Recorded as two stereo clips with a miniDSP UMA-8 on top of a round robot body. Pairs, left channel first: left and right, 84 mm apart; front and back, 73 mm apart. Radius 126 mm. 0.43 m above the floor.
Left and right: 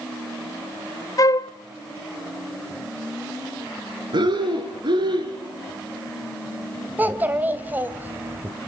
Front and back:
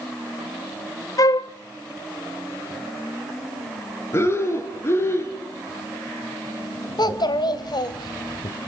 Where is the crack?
I don't hear a crack.